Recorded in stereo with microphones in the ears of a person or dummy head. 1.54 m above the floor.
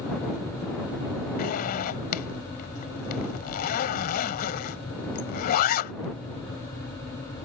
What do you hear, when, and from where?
1.4 s a zipper: 50° left (ahead or behind)